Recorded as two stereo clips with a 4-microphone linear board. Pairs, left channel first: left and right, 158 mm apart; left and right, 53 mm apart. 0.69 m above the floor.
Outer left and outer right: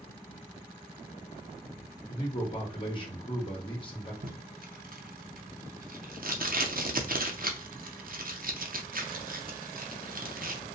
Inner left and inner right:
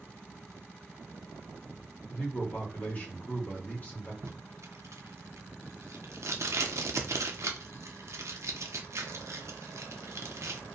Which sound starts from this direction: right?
Tape being pulled, at 4.2 s.